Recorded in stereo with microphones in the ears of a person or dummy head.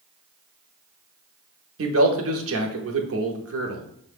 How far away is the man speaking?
About 0.7 m.